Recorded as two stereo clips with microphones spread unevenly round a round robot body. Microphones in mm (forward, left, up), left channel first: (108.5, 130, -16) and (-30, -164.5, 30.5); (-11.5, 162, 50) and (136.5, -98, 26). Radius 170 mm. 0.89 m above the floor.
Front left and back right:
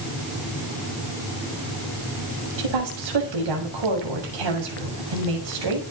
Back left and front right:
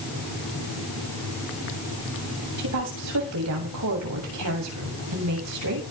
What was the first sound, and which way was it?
A woman speaking, 105° right.